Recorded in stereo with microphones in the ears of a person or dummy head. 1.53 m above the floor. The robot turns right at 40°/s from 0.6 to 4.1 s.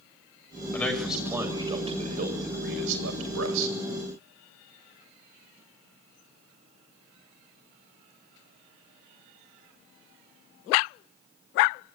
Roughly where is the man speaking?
Centre.